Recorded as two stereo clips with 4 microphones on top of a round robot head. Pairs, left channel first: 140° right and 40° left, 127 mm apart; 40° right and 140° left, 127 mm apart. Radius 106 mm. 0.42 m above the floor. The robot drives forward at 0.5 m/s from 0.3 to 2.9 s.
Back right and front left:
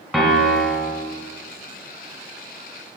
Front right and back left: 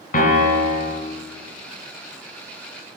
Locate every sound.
0.1 s a piano: 50° right, 1.8 m; by 1.0 s 60° right, 1.6 m